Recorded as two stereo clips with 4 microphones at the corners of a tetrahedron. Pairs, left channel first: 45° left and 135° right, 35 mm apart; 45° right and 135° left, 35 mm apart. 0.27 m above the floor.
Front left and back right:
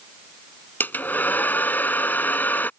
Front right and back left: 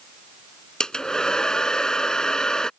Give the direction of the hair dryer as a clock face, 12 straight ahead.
11 o'clock.